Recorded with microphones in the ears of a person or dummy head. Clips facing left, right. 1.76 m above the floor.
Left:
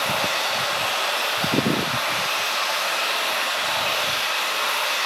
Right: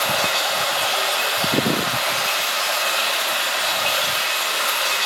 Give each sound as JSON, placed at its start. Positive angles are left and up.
{"t": 0.0, "sound": "running water", "side_deg": -80, "distance_m": 2.0}